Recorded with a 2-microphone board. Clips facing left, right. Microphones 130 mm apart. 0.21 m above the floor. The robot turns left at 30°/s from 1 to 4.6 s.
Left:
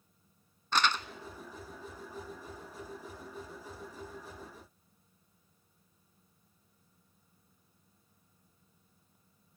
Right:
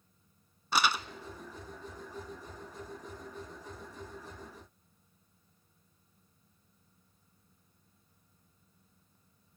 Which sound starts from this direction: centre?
Crumpling, at 0.7 s.